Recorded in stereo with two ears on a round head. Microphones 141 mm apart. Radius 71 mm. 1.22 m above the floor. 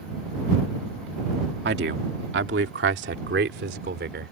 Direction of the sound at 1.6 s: 75° right (ahead or behind).